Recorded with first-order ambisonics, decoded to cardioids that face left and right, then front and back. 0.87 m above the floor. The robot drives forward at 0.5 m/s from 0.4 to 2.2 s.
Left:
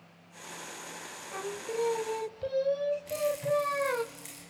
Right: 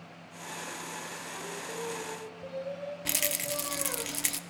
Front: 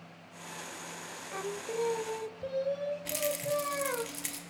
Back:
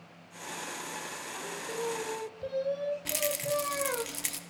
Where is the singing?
40° left, 0.7 m; by 4.0 s 95° left, 0.6 m.